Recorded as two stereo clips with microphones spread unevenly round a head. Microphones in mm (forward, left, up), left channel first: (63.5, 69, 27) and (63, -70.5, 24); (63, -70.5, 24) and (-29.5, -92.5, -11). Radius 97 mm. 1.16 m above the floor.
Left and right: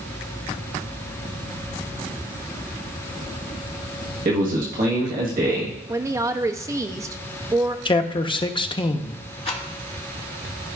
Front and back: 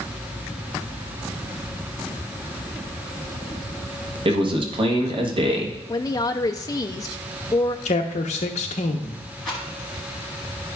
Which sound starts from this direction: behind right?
A man speaking, at 4.2 s.